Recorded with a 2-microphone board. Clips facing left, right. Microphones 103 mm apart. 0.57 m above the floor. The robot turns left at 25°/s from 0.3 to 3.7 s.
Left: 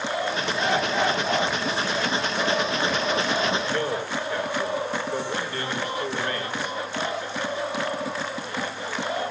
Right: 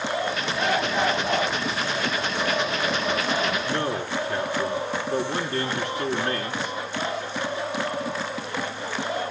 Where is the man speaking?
70° right (ahead or behind), 7 m.